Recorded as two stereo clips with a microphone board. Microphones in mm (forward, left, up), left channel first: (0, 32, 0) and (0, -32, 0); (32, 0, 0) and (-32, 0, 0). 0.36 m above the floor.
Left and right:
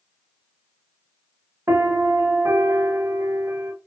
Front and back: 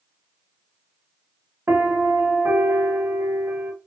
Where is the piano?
130° right, 0.8 m.